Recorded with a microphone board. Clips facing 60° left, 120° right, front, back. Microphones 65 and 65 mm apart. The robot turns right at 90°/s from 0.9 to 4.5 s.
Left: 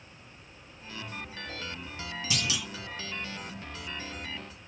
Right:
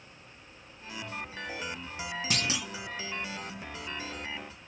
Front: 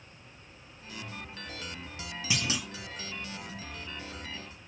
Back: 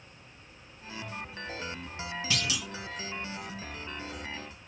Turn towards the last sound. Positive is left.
turn(degrees=120)